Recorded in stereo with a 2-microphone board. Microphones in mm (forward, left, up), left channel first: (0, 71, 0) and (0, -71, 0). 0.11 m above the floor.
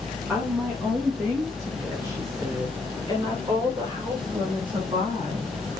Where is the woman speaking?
15° right (ahead or behind), 7.5 m; by 5.5 s 35° right (ahead or behind), 8.5 m.